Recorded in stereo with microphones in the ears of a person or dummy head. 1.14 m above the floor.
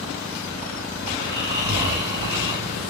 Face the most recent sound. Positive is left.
turn(degrees=-25)  # may be behind; listen again after turning